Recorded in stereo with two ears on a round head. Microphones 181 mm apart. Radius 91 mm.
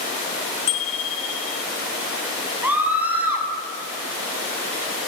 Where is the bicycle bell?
35° left (ahead or behind), 2.5 m.